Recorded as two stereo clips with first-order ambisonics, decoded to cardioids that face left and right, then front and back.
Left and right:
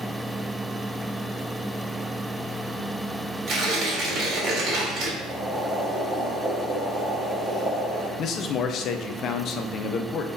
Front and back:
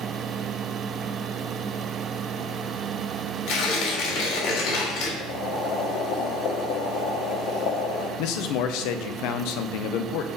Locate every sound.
3.5 s tearing paper: 25° right, 2 m
5.2 s boiling: 15° right, 1.8 m
8.2 s a man speaking: 35° left, 0.7 m